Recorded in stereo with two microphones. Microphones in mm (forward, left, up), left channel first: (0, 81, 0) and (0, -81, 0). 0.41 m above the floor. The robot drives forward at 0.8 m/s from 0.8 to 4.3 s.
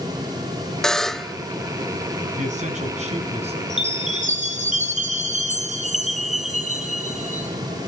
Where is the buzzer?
5° left (ahead or behind), 0.6 m; by 1.4 s centre (ahead or behind), 1.0 m.